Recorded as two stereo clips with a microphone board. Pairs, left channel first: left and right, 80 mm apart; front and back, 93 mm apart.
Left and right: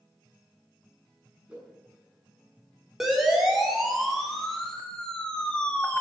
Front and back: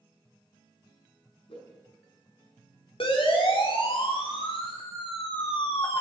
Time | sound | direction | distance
1.5 | a whoosh | 10° right | 6 m
3.0 | a siren | 5° right | 4.5 m